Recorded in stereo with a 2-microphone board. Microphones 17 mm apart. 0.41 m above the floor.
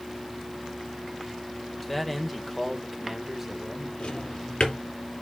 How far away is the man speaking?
About 1.8 m.